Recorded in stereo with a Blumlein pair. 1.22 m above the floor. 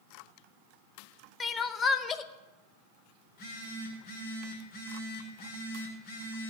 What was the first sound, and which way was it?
Crying, 20° left.